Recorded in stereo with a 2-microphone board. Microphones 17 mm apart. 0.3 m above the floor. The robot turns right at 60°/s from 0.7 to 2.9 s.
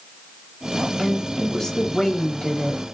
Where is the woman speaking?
25° left, 1.3 m; by 2.8 s 130° left, 1.3 m.